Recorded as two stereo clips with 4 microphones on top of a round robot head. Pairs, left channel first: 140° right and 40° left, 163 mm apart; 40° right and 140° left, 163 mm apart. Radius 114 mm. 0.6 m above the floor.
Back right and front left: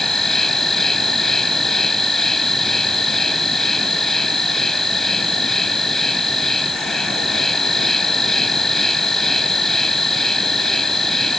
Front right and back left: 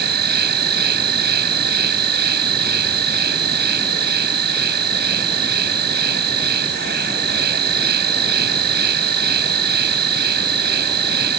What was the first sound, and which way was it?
An insect, 130° left.